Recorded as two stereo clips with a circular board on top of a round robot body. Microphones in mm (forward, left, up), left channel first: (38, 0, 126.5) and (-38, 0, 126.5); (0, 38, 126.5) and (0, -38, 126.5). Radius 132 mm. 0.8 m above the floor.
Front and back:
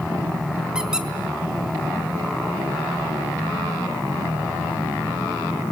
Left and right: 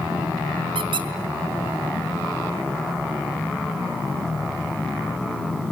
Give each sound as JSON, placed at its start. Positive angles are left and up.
{"t": 0.8, "sound": "a squeak", "azimuth_deg": -100, "distance_m": 1.4}